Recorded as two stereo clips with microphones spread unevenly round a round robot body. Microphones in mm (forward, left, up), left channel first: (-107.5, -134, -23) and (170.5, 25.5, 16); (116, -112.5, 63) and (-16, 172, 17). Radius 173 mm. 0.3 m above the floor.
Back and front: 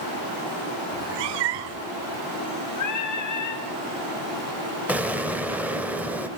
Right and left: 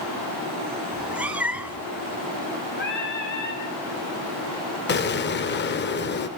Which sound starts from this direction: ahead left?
A cat meowing, at 0.9 s.